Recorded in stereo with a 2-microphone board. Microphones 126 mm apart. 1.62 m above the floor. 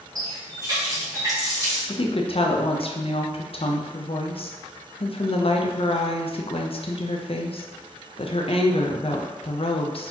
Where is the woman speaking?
50° left (ahead or behind), 0.6 m.